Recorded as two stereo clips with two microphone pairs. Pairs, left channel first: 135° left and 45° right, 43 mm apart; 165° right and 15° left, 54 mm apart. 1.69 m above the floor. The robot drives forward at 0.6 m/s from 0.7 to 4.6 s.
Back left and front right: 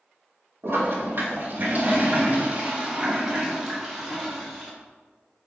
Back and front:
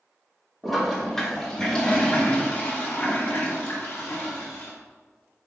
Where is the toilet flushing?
75° right, 2 m; by 4.7 s 130° right, 2.5 m.